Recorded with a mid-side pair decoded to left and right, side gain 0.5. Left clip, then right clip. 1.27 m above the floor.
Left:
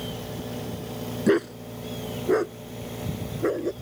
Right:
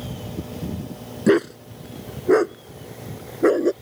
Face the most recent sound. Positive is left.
turn(degrees=-50)